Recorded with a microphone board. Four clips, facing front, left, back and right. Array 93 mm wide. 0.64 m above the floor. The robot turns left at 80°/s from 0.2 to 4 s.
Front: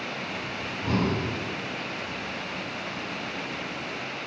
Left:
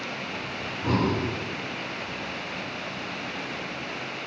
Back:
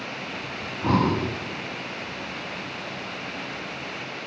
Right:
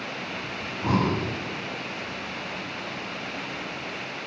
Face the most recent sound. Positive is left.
turn(degrees=-50)